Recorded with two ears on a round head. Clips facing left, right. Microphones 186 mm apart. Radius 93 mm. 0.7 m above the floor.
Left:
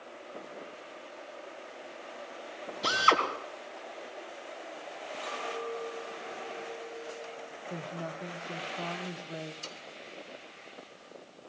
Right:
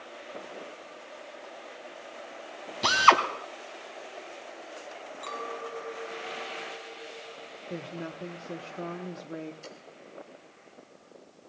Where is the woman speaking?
25° right (ahead or behind), 1.1 m.